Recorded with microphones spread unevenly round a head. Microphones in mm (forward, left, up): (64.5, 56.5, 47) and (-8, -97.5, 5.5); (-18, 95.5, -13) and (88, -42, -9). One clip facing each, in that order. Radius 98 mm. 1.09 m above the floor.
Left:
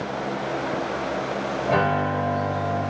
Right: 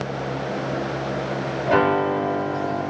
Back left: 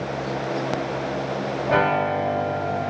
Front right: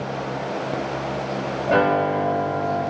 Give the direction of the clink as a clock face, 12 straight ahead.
No clink in this recording.